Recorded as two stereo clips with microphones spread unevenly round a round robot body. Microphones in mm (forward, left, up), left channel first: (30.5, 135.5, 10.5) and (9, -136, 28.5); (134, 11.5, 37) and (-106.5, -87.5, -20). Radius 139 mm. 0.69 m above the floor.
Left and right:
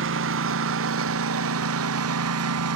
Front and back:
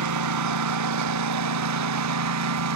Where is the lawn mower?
140° right; by 2.8 s 135° right.